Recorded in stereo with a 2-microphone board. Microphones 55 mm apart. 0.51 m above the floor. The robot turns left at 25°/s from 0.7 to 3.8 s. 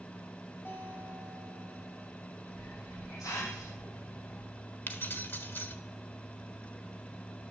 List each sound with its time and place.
0.7 s a guitar: 140° left, 5.5 m; by 2.1 s 100° left, 5.5 m
2.5 s a hiss: 105° left, 6.5 m; by 4.4 s 75° left, 6.5 m
4.9 s keys jangling: 40° left (ahead or behind), 1.1 m